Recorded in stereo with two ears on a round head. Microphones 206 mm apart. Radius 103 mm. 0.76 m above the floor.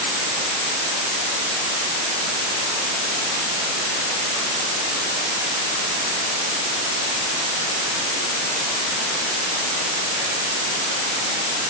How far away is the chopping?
No chopping in this recording.